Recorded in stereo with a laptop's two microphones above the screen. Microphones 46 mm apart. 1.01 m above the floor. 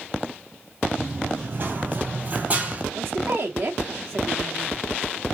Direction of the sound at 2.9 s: 55° right (ahead or behind).